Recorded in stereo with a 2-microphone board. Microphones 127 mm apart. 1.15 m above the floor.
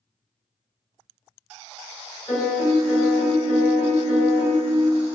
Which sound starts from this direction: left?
A piano, at 2.3 s.